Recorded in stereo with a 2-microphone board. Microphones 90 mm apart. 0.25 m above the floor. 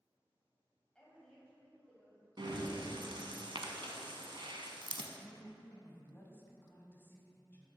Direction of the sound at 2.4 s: 65° right (ahead or behind).